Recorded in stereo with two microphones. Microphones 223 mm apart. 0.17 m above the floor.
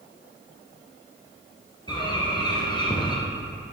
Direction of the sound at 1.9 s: 20° left (ahead or behind).